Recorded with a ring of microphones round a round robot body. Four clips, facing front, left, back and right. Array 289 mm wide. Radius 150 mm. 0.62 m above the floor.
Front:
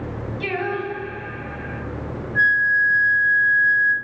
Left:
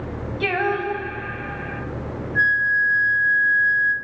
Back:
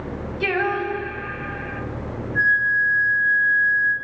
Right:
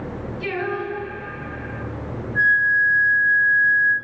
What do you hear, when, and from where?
0.4 s singing: 110° left, 3.5 m
2.4 s a flute: 30° left, 3 m